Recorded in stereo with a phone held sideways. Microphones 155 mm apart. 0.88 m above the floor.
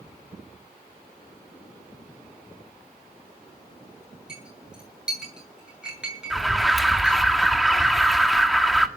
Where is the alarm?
Centre (ahead or behind), 1.5 m.